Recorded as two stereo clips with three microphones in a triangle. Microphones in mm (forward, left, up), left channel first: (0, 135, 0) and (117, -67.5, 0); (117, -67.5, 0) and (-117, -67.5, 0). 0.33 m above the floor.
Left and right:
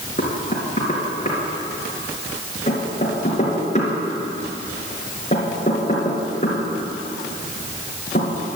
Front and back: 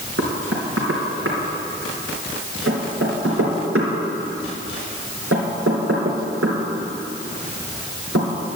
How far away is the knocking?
About 3.5 m.